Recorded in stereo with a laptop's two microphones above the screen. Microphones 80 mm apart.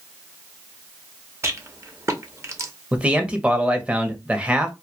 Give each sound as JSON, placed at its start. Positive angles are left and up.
{"t": 1.4, "sound": "a rattle", "side_deg": -40, "distance_m": 0.8}
{"t": 2.9, "sound": "a man speaking", "side_deg": -15, "distance_m": 0.9}